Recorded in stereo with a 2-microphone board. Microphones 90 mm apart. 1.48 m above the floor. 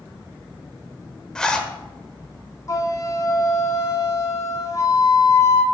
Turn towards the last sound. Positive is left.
turn(degrees=35)  # may be behind; listen again after turning